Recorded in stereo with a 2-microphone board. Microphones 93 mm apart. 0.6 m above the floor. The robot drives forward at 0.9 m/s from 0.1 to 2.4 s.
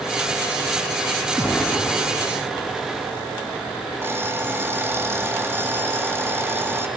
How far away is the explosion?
About 0.9 m.